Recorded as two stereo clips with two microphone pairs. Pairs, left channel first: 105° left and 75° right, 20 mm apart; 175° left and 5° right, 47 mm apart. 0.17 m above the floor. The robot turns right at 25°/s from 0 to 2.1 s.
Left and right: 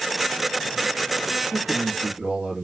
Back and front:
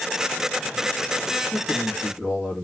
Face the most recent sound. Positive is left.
turn(degrees=-90)